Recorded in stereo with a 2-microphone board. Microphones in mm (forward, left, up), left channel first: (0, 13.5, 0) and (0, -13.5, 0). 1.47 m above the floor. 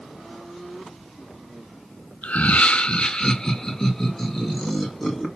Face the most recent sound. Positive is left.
turn(degrees=10)  # may be behind; listen again after turning